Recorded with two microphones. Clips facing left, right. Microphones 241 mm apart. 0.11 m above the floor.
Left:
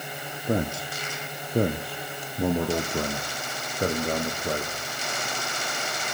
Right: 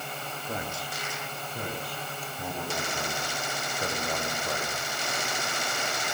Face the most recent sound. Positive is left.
turn(degrees=35)  # may be behind; listen again after turning